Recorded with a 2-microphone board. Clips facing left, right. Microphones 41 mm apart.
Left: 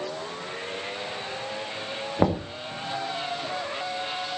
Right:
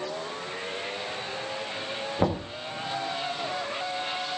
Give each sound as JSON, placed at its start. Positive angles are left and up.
{"t": 2.2, "sound": "knocking", "side_deg": 10, "distance_m": 1.9}